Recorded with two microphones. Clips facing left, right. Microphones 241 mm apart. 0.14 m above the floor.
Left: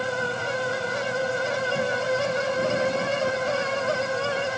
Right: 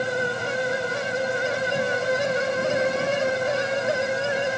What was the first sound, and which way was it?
Only background noise.